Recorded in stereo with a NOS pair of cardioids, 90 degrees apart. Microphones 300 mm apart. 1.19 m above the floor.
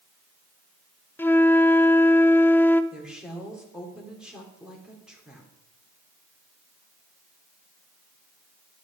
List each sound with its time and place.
1.2 s a flute: 5° left, 0.6 m
2.9 s a woman speaking: straight ahead, 3.5 m